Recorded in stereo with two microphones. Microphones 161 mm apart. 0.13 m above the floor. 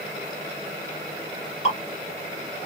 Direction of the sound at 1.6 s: 45° left (ahead or behind).